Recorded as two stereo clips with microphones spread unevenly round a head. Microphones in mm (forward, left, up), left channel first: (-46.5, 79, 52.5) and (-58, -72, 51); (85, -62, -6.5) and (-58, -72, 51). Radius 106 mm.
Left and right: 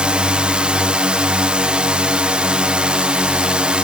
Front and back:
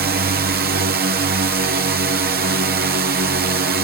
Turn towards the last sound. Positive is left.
turn(degrees=-175)